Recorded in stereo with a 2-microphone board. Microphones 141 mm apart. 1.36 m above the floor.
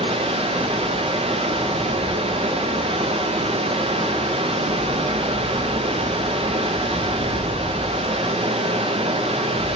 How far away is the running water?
About 0.8 m.